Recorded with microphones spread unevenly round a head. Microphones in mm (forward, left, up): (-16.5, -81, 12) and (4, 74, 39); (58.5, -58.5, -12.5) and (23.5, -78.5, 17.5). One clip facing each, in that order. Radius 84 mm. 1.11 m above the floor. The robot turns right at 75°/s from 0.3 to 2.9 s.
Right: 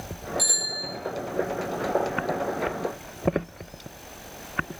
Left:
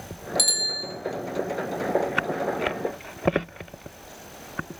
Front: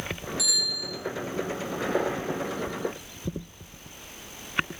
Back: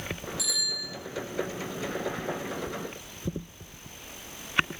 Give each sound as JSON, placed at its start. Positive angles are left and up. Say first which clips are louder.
{"t": 0.4, "sound": "a bicycle bell", "louder": "even, front 4 dB", "azimuth_deg": 100, "distance_m": 5.0}